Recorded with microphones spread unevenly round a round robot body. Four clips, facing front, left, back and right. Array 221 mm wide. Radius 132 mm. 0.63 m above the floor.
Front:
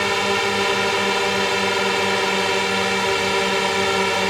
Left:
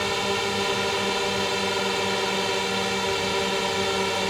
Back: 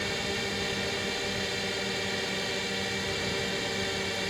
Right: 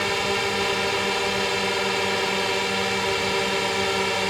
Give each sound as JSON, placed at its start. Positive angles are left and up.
{"t": 0.0, "sound": "a drone", "azimuth_deg": -5}